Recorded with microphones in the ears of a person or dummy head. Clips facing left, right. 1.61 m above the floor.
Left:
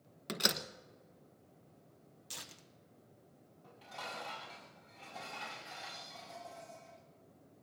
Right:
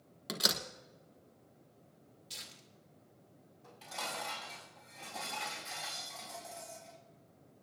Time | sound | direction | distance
0.3 | a door slam | 10° left (ahead or behind) | 1.1 m
2.3 | tearing paper | 70° left (ahead or behind) | 1.3 m
3.6 | dishes clattering | 30° right (ahead or behind) | 6.5 m